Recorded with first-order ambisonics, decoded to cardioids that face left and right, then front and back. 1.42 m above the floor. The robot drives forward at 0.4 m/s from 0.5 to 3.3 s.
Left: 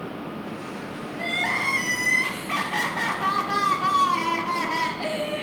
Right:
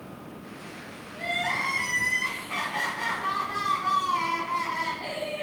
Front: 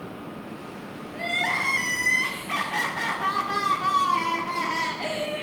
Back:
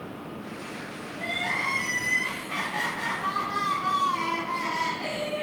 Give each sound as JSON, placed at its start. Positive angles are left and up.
{"t": 1.1, "sound": "crying", "azimuth_deg": 40, "distance_m": 1.9}